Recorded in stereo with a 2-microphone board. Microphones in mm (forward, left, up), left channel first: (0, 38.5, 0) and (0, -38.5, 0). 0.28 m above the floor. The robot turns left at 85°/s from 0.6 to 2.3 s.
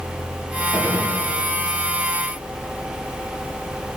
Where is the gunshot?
15° right, 5 m; by 1.1 s 50° right, 5 m.